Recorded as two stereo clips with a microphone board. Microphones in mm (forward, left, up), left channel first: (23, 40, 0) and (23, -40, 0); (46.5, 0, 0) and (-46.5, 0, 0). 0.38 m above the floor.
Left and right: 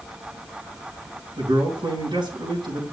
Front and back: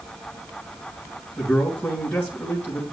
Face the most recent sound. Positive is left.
turn(degrees=-85)